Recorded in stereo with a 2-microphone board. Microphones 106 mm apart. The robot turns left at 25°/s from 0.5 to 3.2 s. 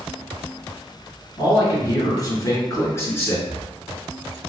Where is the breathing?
25° left (ahead or behind), 1.8 m.